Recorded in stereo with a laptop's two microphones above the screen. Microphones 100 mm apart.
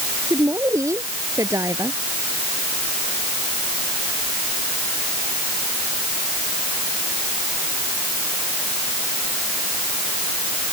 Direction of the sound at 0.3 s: 30° right (ahead or behind).